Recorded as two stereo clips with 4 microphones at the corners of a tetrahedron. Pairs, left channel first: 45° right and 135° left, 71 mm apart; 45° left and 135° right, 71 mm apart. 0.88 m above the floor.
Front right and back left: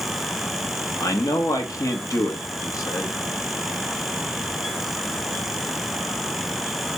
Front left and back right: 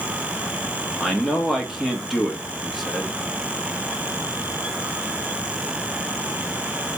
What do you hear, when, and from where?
1.0 s a man speaking: 45° right, 1.0 m